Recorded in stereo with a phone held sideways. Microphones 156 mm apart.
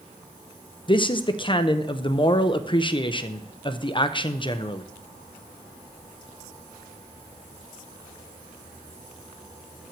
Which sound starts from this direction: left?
A man speaking, at 0.9 s.